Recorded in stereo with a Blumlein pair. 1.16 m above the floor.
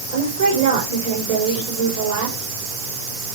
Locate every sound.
0.1 s a woman speaking: 55° right, 4 m